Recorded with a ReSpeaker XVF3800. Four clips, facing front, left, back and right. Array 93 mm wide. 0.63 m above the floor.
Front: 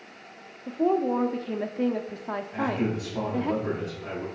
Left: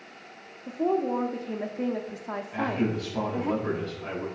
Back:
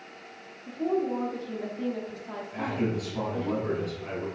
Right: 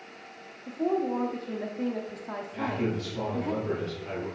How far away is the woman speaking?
About 0.8 m.